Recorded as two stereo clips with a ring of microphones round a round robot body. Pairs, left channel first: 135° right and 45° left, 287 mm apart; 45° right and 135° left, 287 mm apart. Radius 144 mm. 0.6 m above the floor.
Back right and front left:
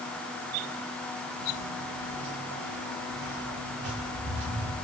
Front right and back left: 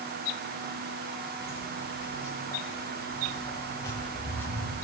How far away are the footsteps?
About 5 m.